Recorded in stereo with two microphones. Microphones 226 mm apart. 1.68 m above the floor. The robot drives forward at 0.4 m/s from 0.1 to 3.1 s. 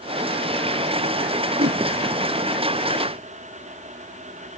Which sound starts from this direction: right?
A whoosh, at 1.6 s.